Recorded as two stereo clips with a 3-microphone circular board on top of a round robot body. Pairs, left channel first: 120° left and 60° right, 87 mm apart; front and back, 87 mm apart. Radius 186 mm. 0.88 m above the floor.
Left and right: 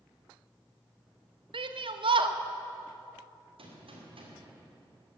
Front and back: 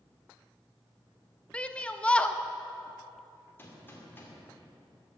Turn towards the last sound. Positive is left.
turn(degrees=-65)